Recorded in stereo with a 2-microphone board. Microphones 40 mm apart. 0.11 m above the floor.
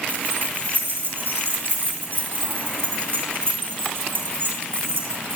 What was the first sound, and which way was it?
Keys jangling, 50° right (ahead or behind).